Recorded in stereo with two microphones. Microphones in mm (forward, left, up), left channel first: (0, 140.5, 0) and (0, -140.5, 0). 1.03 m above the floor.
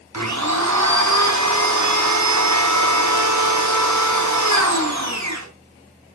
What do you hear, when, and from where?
0.1 s a blender: 75° right (ahead or behind), 3.5 m